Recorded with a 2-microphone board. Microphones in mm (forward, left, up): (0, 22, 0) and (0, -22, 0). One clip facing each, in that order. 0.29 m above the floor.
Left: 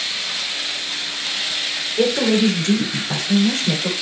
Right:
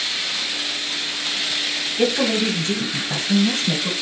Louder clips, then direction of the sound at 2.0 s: Left 3 dB; 45° left (ahead or behind).